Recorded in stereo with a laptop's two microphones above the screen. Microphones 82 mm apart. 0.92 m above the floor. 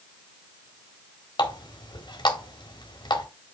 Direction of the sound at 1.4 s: 85° left.